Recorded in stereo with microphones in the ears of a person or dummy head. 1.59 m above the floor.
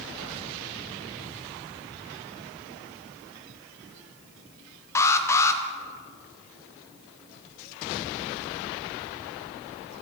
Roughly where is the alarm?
Centre.